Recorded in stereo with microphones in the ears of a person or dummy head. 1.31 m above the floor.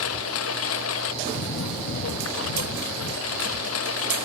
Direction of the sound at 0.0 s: 85° left.